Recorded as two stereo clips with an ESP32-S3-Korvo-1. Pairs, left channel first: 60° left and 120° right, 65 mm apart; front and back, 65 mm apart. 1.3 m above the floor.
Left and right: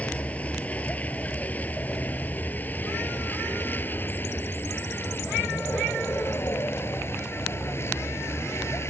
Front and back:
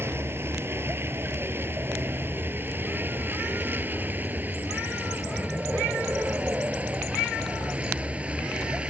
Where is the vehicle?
130° left; by 8.9 s 105° left.